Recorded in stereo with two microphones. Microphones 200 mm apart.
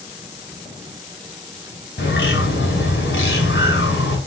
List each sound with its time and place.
2.0 s a bird: 65° left (ahead or behind), 3.5 m